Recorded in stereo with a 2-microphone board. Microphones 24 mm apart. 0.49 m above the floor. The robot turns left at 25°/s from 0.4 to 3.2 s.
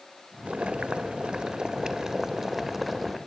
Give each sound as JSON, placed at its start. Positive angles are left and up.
{"t": 0.5, "sound": "boiling", "azimuth_deg": -115, "distance_m": 2.0}